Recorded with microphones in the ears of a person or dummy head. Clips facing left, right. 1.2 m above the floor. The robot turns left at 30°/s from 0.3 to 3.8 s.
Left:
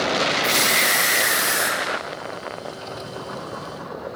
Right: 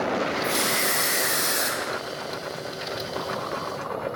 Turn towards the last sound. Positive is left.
turn(degrees=-65)